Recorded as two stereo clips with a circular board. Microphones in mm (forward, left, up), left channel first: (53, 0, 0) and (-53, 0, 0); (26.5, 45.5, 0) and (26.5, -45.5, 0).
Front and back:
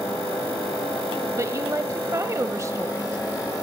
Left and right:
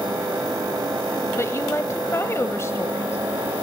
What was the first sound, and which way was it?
A woman speaking, 135° left.